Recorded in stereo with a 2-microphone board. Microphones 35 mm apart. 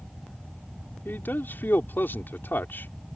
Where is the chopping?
I don't hear chopping.